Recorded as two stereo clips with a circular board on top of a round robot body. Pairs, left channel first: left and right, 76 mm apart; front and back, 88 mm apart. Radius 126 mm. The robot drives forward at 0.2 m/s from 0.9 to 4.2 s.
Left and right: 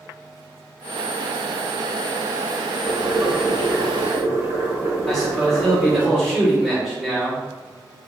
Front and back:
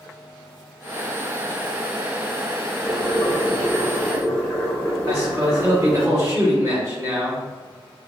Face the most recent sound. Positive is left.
turn(degrees=175)